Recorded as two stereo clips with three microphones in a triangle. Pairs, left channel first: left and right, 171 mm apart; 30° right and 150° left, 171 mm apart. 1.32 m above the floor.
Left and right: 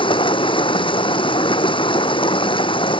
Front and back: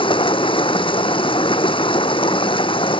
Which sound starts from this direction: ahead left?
Running water, at 0.0 s.